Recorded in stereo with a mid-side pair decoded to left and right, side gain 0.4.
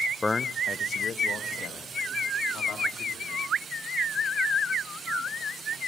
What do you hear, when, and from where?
0.2 s a man speaking: 20° left, 0.6 m; by 3.5 s 70° left, 3 m